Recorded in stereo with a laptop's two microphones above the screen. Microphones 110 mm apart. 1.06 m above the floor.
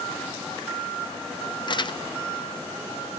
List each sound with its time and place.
1.7 s crumpling: 45° left (ahead or behind), 1.1 m